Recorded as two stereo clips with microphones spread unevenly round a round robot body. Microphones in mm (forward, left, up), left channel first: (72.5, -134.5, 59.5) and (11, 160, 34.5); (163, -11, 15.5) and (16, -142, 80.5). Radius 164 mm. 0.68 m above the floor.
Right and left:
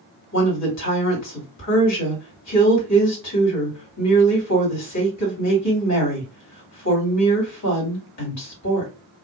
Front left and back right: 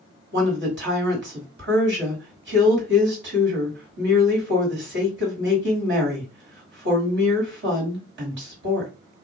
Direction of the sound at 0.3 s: 105° right.